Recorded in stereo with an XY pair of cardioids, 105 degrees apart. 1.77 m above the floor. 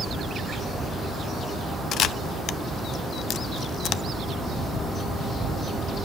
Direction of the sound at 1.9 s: 70° left.